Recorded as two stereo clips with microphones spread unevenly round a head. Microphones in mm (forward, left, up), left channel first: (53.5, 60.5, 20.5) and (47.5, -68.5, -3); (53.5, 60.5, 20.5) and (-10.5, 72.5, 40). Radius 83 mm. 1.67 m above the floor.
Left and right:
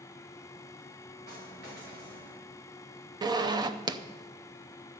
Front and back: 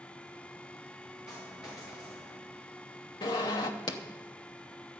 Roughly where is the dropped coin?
Right.